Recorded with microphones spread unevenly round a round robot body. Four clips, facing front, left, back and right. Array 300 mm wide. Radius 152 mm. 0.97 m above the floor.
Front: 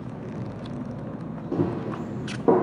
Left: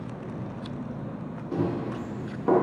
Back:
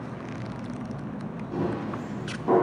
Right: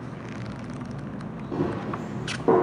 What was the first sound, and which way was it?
Running footsteps, 10° left.